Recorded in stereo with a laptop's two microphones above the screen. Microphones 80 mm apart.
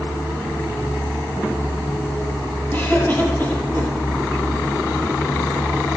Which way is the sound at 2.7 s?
30° left (ahead or behind).